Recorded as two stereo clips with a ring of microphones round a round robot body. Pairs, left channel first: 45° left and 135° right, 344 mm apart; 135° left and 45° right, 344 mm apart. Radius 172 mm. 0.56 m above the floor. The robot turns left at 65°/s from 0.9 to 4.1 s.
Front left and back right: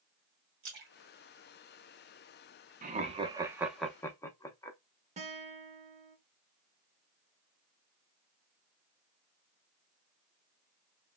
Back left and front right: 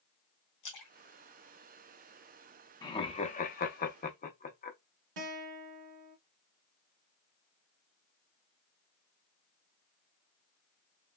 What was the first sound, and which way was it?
A splash, 170° left.